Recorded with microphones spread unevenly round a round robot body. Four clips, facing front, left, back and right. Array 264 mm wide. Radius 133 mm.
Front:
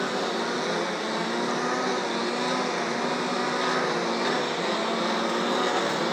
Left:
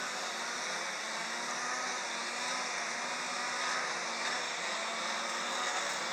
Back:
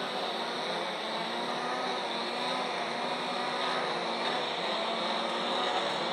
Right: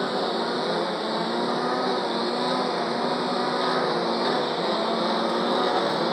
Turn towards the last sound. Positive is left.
turn(degrees=-55)